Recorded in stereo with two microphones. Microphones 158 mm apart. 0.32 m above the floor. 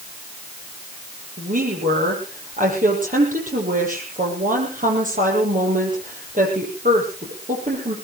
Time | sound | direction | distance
1.4 | a woman speaking | 60° right (ahead or behind) | 9.5 m